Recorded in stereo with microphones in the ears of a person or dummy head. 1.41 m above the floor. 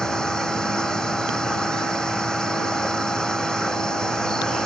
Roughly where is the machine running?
Centre.